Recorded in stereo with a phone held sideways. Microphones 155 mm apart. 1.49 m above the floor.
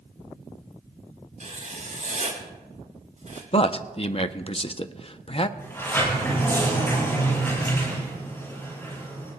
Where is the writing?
55° right (ahead or behind), 3.5 m.